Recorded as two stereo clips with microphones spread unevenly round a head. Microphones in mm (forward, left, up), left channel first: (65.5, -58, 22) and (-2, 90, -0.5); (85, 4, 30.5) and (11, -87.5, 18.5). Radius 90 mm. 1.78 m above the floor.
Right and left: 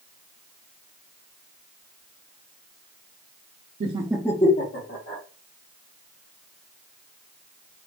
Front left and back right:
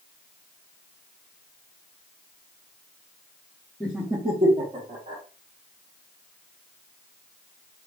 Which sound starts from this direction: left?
Laughter, at 3.8 s.